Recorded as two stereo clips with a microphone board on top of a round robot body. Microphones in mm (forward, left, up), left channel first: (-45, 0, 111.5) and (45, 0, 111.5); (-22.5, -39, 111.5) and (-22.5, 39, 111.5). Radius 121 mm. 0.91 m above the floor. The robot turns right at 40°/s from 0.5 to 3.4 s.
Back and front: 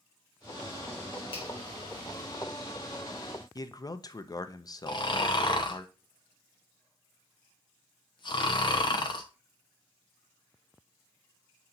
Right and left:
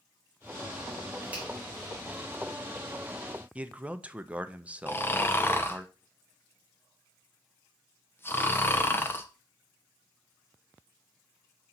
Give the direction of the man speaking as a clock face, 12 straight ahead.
7 o'clock.